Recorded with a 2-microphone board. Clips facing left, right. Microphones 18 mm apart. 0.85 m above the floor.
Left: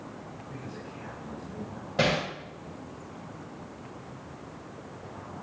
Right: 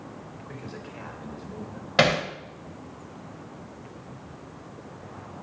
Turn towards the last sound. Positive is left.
turn(degrees=-55)  # may be behind; listen again after turning